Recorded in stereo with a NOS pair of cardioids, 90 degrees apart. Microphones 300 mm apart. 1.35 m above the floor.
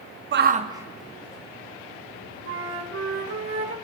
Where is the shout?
40° right, 0.6 m; by 3.4 s 30° left, 2.5 m.